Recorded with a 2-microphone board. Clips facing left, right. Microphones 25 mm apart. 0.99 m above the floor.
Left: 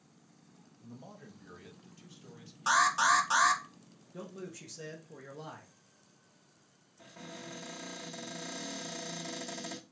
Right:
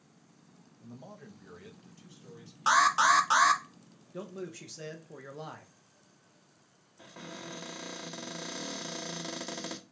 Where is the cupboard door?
30° right (ahead or behind), 0.9 m.